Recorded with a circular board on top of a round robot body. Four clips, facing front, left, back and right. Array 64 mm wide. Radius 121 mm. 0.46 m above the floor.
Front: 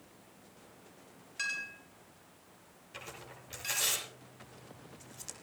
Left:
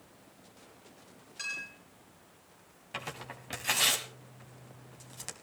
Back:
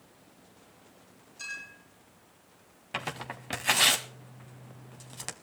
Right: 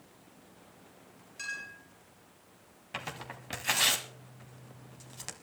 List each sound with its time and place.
1.4 s a clink: 10° left, 6.5 m
2.9 s tearing paper: 175° right, 1.0 m